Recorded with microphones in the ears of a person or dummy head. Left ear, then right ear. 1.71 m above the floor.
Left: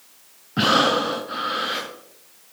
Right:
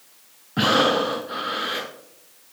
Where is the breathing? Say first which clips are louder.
Left 1 dB; 5° right (ahead or behind), 0.8 m.